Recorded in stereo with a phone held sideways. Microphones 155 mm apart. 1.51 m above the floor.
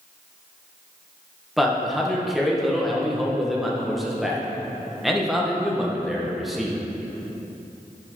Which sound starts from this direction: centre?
A man speaking, at 1.6 s.